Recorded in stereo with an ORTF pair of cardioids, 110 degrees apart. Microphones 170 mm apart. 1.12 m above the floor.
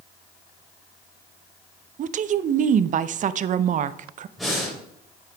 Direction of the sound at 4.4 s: Straight ahead.